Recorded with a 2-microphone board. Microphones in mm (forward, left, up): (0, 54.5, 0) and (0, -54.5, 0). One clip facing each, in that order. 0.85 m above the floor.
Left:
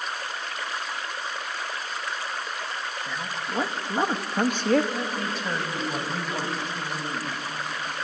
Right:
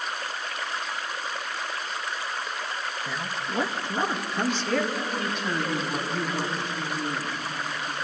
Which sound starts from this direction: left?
A woman speaking, at 4.9 s.